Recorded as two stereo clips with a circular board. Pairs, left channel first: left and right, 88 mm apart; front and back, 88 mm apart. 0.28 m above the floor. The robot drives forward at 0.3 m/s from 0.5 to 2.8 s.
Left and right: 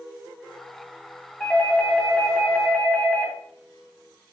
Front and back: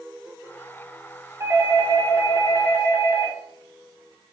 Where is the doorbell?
155° left, 1.8 m; by 3.4 s 160° left, 2 m.